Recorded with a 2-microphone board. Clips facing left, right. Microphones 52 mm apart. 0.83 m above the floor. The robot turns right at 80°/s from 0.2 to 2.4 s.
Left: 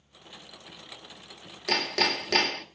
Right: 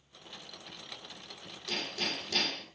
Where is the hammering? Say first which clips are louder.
Left 9 dB; 65° left, 1.4 m; by 2.6 s 120° left, 1.4 m.